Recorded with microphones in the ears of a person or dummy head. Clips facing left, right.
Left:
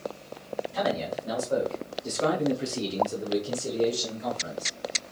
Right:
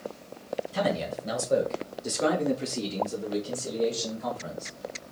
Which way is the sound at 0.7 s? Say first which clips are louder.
Even; 25° right (ahead or behind).